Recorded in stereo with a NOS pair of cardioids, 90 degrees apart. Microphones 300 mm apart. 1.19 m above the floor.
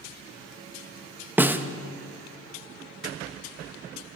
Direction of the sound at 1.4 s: 5° right.